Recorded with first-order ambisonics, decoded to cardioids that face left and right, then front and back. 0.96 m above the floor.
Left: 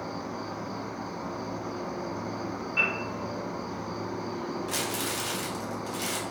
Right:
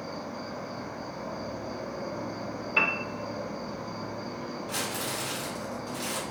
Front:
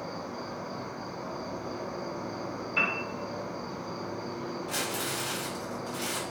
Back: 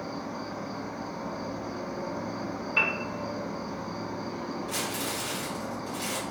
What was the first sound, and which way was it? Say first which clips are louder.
An insect: left 2 dB, back 1 dB; 110° left.